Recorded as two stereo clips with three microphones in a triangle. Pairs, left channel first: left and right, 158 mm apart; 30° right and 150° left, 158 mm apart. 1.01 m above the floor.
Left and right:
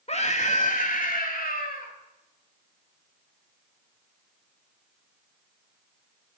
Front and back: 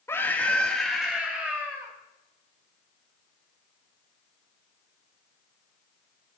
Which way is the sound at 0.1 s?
45° left.